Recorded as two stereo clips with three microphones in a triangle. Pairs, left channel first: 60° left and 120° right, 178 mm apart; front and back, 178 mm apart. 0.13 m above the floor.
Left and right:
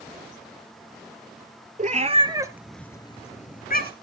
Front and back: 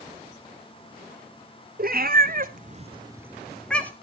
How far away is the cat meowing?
About 1.1 m.